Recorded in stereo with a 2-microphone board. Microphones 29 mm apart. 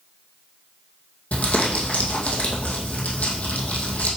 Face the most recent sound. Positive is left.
turn(degrees=55)  # may be behind; listen again after turning